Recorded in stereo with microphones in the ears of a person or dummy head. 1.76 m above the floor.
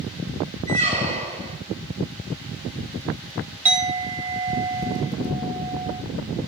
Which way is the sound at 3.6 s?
20° right (ahead or behind).